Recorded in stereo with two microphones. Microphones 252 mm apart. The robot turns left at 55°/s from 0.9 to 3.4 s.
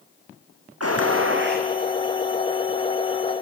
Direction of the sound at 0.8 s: 100° right.